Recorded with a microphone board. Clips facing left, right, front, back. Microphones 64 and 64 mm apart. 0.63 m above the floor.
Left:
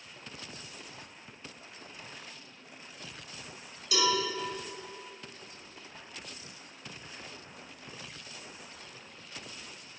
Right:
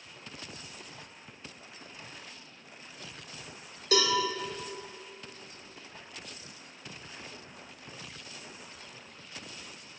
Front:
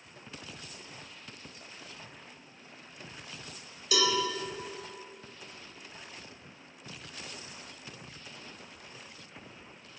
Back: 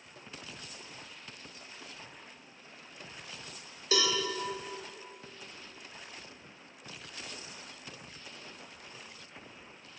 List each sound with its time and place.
3.9 s a cowbell: 125° right, 1.1 m